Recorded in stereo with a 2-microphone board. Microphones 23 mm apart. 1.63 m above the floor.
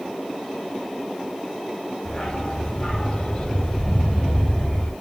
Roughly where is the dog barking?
Left.